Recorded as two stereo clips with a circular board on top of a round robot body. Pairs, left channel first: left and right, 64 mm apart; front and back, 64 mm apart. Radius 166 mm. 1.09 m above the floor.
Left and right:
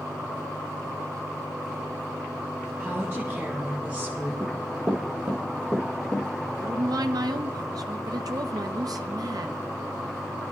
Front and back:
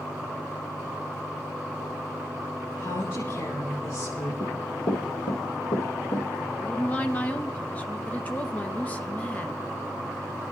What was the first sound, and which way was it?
A woman speaking, 35° right.